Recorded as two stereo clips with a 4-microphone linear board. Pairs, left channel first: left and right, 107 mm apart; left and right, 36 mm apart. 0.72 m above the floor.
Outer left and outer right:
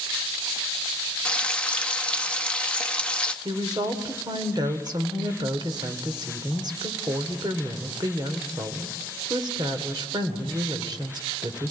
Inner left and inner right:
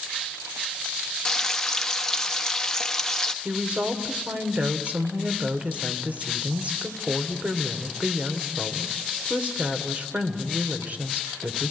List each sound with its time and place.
1.2 s frying: 10° left (ahead or behind), 1.2 m
3.5 s a woman speaking: 45° right (ahead or behind), 2 m